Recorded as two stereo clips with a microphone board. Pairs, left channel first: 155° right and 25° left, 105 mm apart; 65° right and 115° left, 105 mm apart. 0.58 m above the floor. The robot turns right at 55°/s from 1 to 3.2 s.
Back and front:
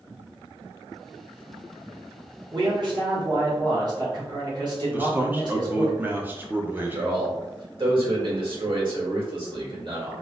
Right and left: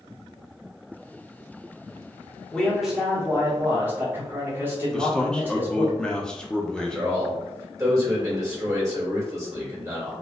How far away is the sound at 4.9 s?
About 0.6 m.